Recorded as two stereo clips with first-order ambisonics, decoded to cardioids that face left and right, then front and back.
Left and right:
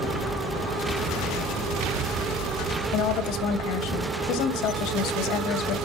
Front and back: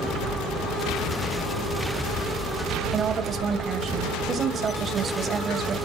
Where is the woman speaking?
115° left, 2.5 m.